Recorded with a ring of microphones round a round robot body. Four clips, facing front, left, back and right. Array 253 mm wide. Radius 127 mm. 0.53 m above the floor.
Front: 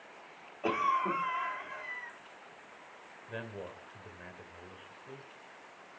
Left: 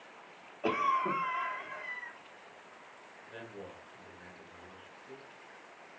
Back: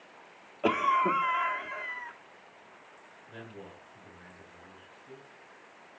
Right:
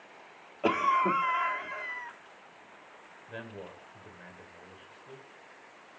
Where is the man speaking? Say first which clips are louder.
Right 3 dB, front 4 dB; 30° right, 2.5 m.